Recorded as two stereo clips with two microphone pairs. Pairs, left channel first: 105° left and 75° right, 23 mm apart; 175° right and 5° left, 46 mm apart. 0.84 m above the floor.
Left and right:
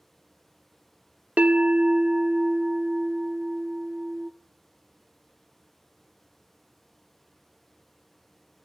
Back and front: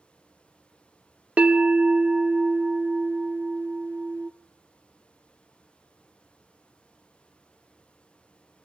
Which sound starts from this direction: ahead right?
A bell, at 1.4 s.